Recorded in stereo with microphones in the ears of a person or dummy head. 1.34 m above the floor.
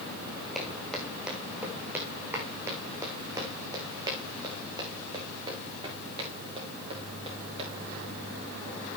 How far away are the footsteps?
About 3 m.